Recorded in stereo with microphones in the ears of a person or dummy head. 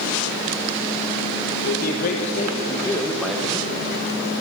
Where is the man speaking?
55° left (ahead or behind), 1.3 m; by 3.7 s 15° right (ahead or behind), 0.9 m.